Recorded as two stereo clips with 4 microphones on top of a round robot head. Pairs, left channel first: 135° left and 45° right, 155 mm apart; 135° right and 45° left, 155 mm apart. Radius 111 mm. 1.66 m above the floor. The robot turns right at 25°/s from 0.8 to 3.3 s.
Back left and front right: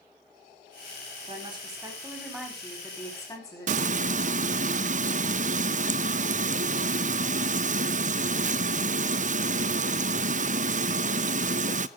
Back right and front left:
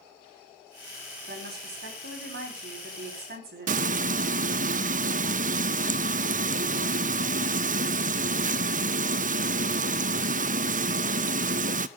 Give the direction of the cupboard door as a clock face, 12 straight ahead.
No cupboard door in this recording.